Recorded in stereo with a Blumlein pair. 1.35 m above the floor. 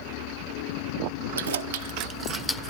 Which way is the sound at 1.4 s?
70° right.